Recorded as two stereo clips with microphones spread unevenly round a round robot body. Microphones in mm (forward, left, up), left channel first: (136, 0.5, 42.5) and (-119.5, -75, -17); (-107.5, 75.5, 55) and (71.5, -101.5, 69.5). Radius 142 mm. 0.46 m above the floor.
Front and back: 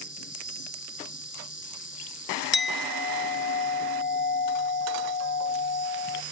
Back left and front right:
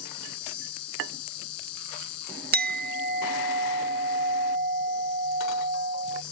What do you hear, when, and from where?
0.0 s an insect: 110° left
2.5 s a clink: 20° right